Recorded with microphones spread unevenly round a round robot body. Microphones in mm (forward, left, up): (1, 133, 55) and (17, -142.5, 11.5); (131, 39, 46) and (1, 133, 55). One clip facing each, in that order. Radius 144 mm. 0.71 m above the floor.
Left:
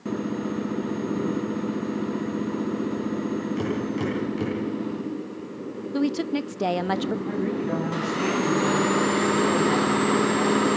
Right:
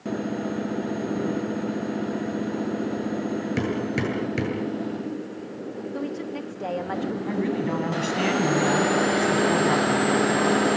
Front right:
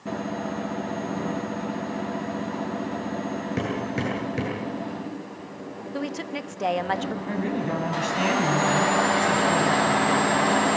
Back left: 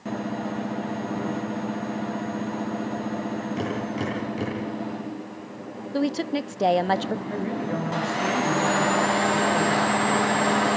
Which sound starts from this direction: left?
A woman speaking, at 5.9 s.